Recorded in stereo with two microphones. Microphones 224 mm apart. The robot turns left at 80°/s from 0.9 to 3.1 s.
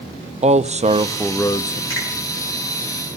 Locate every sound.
0.4 s a man speaking: 150° right, 0.6 m; by 1.8 s 140° left, 0.6 m
1.9 s a finger snap: 75° right (ahead or behind), 8 m; by 2.1 s 85° right, 8 m